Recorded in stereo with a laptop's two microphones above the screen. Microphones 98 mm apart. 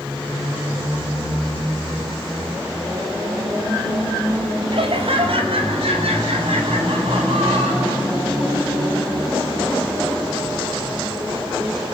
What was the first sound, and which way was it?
Laughter, 65° right (ahead or behind).